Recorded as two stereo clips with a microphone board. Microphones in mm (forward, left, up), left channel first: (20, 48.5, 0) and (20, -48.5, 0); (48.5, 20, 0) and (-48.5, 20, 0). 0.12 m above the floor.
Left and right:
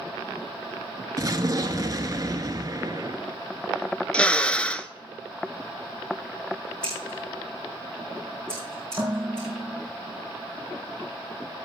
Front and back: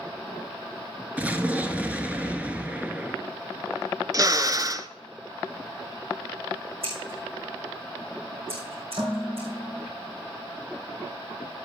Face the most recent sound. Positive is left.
turn(degrees=-165)